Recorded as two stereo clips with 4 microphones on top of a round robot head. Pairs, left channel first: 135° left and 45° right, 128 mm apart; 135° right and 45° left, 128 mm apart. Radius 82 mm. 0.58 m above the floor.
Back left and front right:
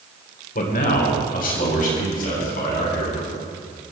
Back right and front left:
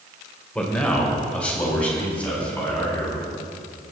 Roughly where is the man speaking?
Behind left.